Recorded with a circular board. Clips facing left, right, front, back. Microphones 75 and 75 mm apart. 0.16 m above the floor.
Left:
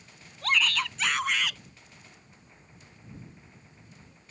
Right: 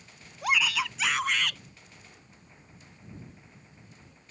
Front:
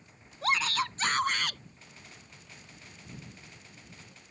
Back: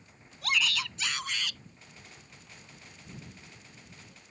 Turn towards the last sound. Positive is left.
turn(degrees=5)